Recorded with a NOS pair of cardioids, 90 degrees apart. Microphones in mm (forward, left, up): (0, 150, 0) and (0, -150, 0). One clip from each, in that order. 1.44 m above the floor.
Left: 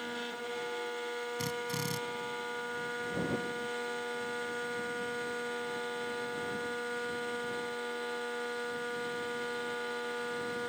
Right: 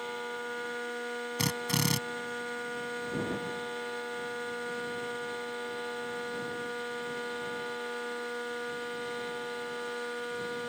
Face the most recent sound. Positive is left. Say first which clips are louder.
# right 8 dB
turn(degrees=-65)